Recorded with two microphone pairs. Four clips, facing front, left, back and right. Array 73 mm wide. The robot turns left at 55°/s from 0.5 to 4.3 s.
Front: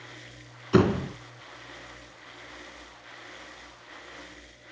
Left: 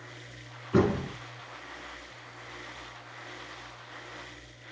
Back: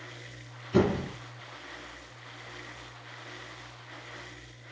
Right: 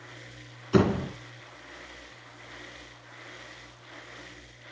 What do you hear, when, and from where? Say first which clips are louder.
0.7 s a door slam: right 2 dB, front 3 dB; 20° right, 2.5 m; by 1.1 s 40° right, 2.5 m